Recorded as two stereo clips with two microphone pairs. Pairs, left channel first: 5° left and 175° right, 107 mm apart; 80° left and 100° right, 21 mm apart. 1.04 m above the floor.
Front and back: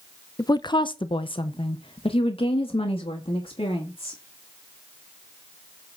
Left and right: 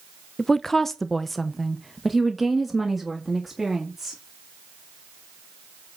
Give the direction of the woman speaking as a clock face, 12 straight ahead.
11 o'clock.